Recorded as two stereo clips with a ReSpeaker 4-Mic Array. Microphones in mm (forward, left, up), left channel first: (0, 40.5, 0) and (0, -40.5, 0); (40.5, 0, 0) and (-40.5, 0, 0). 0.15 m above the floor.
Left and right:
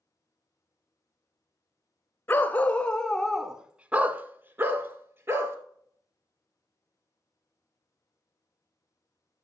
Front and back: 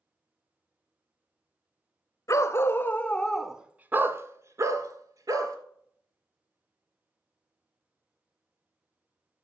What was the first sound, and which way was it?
A dog barking, 30° left.